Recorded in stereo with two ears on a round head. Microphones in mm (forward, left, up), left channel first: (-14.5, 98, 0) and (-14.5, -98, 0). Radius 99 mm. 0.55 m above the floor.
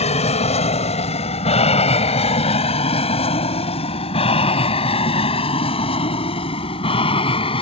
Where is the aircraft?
30° left (ahead or behind); by 7.6 s 25° left (ahead or behind).